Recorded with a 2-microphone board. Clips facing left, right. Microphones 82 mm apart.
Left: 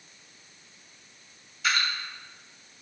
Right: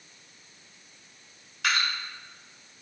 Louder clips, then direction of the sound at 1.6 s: Even; 65° right (ahead or behind).